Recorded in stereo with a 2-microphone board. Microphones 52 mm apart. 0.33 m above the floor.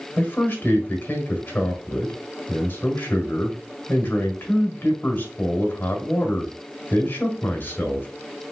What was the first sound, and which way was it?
A man speaking, 45° left (ahead or behind).